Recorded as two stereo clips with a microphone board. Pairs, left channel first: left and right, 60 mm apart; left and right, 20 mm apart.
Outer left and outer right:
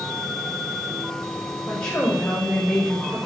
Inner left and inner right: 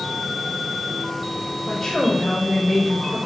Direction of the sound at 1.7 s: 20° left (ahead or behind).